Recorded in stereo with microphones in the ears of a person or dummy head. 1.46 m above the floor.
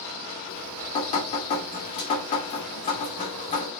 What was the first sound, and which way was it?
Dripping, 20° left (ahead or behind).